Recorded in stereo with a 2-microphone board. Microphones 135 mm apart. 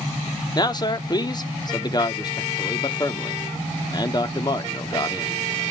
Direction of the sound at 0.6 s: 30° left (ahead or behind).